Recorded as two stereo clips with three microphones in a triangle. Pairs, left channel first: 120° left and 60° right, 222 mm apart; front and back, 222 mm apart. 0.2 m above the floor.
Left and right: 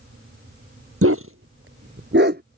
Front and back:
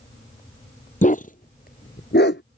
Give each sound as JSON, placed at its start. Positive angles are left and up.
{"t": 1.0, "sound": "a dog barking", "azimuth_deg": -55}